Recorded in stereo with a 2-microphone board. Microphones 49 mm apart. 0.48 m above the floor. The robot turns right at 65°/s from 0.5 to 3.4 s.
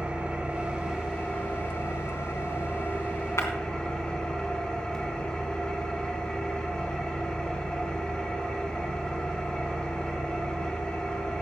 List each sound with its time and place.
0.0 s an engine running: 30° right, 3 m; by 11.4 s 160° left, 3 m
3.4 s breaking glass: 75° left (ahead or behind), 2 m; by 3.5 s 70° left (ahead or behind), 2 m